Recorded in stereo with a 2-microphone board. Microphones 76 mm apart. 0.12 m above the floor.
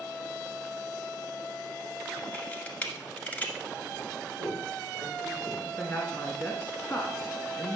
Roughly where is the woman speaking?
Left.